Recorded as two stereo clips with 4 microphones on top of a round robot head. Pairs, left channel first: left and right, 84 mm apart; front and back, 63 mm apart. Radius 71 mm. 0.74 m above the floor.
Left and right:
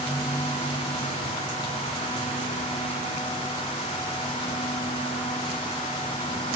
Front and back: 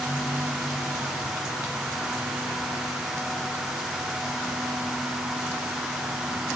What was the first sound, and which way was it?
Only background noise.